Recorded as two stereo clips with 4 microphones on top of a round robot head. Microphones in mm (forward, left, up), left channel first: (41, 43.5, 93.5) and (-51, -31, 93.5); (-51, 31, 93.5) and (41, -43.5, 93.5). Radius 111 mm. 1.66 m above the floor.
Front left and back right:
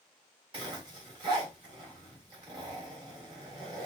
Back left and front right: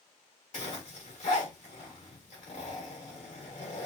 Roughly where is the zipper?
Behind.